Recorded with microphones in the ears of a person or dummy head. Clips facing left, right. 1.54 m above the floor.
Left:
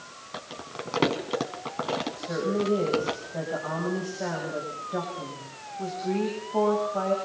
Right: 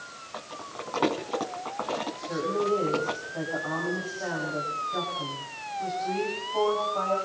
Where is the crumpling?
40° left (ahead or behind), 3 m.